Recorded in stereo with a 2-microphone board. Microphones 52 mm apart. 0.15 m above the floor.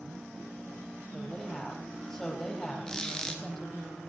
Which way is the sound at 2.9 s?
15° left (ahead or behind).